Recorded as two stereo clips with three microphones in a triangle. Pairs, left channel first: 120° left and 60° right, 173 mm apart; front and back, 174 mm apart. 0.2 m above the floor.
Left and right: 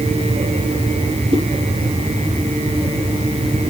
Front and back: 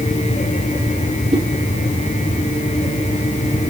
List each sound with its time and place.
1.3 s a whoosh: 120° right, 4.5 m